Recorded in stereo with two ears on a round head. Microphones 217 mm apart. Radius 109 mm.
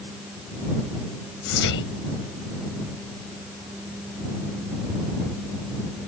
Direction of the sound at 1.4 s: 60° left (ahead or behind).